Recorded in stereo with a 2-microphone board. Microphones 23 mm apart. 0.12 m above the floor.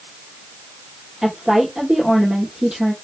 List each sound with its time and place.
1.2 s a woman speaking: 25° right (ahead or behind), 2 m